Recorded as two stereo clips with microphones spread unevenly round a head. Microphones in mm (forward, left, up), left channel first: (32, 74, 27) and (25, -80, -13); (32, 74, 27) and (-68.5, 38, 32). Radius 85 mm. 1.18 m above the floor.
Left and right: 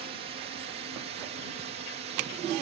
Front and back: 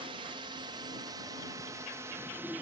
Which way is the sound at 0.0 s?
120° right.